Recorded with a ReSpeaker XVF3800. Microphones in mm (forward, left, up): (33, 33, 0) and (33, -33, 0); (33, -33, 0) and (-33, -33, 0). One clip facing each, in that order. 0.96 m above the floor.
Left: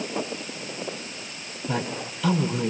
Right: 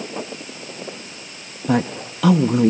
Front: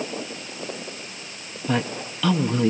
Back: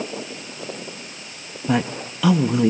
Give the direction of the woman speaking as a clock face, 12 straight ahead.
3 o'clock.